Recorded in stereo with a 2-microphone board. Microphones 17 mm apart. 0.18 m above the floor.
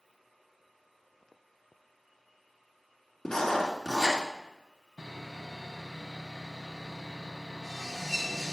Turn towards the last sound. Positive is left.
turn(degrees=-10)  # may be behind; listen again after turning